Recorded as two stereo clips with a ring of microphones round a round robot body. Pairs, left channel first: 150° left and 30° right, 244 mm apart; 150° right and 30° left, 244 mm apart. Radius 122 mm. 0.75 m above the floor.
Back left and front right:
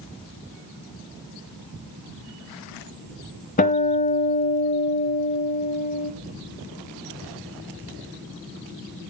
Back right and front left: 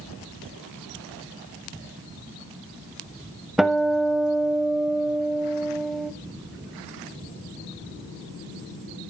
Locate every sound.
3.6 s a guitar: 120° left, 0.6 m